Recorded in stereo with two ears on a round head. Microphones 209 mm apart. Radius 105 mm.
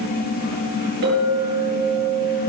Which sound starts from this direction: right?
A clink, at 1.0 s.